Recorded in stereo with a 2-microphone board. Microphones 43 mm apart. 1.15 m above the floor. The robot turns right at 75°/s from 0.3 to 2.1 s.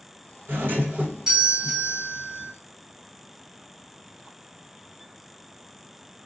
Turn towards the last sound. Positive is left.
turn(degrees=50)